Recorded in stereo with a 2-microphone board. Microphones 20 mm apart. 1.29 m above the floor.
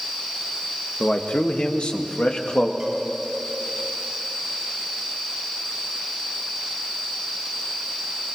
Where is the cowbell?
25° right (ahead or behind), 8 m.